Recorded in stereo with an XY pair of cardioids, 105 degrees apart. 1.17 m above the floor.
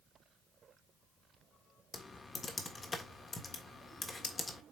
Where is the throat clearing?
I don't hear throat clearing.